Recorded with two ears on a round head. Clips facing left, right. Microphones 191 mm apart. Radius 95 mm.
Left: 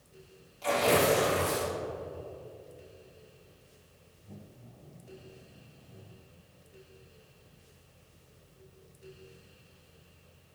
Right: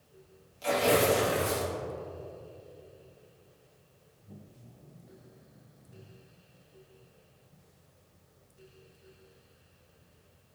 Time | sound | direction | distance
0.6 | tearing paper | 20° right (ahead or behind) | 3 m